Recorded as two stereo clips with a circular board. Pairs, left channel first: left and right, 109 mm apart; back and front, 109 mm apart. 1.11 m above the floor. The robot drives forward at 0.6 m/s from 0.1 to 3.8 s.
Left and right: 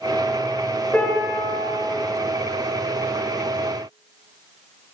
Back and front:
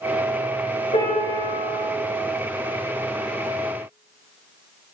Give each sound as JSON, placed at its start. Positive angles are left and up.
{"t": 0.9, "sound": "a piano", "azimuth_deg": 165, "distance_m": 4.0}